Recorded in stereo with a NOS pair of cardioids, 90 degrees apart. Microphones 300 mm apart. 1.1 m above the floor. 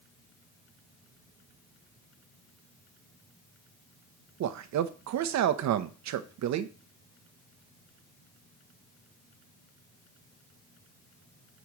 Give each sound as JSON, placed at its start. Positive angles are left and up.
{"t": 4.4, "sound": "a man speaking", "azimuth_deg": -70, "distance_m": 0.9}